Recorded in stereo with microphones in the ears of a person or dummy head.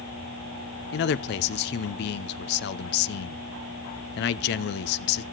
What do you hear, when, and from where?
0.9 s a man speaking: 55° left (ahead or behind), 0.6 m